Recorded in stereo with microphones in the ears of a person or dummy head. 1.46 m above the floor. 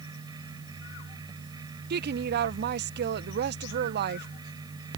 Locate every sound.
0.0 s a fan: 25° right (ahead or behind)
1.9 s a woman speaking: 55° right (ahead or behind)